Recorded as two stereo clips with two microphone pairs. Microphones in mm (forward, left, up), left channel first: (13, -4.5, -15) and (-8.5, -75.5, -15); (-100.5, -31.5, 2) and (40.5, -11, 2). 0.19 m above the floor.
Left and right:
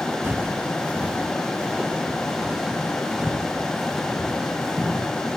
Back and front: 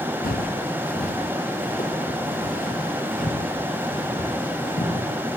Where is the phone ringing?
I don't hear a phone ringing.